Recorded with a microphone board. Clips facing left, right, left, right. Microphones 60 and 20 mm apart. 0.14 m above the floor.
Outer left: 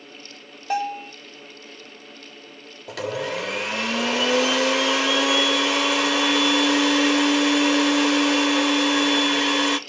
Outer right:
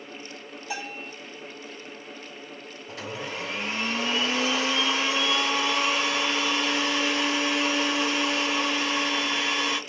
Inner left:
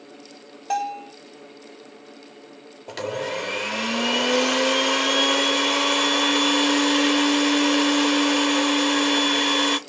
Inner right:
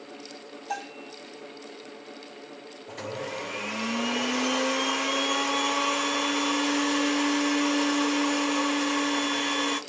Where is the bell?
45° left (ahead or behind), 1.2 m.